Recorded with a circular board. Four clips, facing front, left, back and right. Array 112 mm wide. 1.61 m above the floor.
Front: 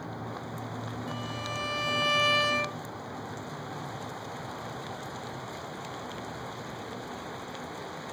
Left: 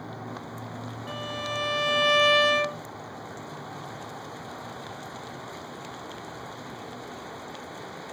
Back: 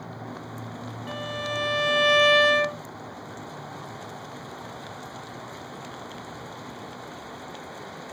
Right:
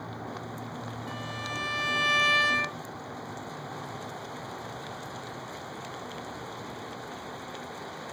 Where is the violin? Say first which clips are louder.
Left 6 dB, back 9 dB; 150° left, 0.8 m.